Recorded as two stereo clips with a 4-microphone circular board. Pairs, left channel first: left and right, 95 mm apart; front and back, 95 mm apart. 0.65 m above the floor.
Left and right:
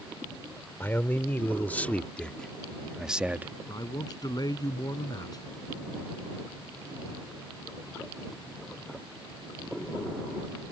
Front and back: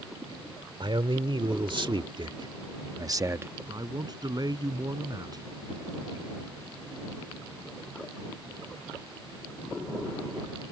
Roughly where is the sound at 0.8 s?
Behind left.